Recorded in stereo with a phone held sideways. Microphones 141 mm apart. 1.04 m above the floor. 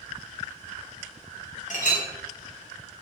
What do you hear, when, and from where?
1.7 s a clink: 60° left (ahead or behind), 0.5 m